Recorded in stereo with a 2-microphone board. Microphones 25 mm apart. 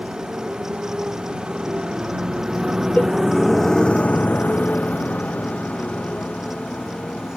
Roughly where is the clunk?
I don't hear a clunk.